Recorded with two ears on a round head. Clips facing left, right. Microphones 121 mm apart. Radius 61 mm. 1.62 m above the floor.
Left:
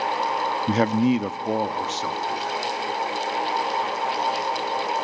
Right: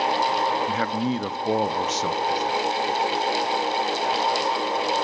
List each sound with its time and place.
0.7 s a man speaking: 45° left (ahead or behind), 0.5 m; by 2.6 s 30° right (ahead or behind), 1.4 m